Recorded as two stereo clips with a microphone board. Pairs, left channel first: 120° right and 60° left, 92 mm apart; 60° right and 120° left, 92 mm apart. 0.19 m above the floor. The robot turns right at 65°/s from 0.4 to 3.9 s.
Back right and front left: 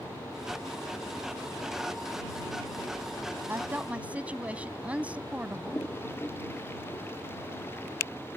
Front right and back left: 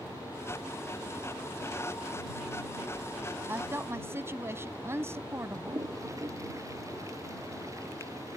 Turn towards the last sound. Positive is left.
turn(degrees=175)